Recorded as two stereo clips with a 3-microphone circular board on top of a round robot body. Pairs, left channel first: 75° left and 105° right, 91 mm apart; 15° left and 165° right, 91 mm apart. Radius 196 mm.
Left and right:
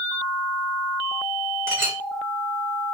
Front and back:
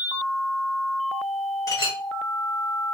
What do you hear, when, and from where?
1.7 s a clink: 40° right, 1.3 m